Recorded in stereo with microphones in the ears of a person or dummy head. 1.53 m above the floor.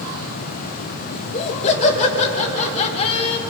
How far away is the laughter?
About 4 m.